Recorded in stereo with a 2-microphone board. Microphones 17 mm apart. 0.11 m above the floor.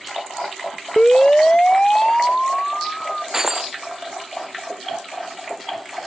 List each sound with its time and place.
1.0 s a siren: 60° left (ahead or behind); by 3.2 s 25° left (ahead or behind)
3.3 s breaking glass: 20° right (ahead or behind)